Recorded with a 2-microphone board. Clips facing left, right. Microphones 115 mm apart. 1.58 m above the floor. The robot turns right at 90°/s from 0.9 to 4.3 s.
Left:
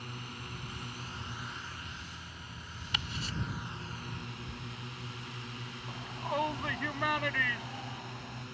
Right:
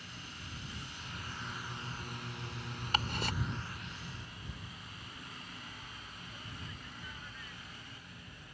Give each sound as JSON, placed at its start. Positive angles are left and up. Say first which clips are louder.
{"t": 0.0, "sound": "a drone", "louder": "left 5 dB", "side_deg": 55}
{"t": 2.9, "sound": "ticking", "louder": "right 5 dB", "side_deg": -40}
{"t": 5.9, "sound": "a shout", "louder": "left 15 dB", "side_deg": 90}